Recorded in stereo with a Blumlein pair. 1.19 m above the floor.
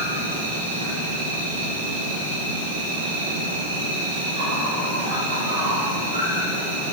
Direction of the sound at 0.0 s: 70° right.